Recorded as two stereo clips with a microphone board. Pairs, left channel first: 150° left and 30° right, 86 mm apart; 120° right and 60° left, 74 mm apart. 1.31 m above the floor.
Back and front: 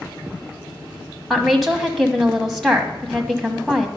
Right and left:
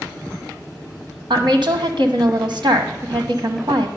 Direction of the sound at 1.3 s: 60° left.